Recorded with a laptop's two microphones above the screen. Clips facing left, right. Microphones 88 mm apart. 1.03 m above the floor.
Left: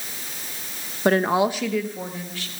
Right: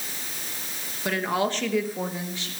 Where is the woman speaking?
45° left (ahead or behind), 0.9 m; by 2.5 s 25° right (ahead or behind), 1.8 m.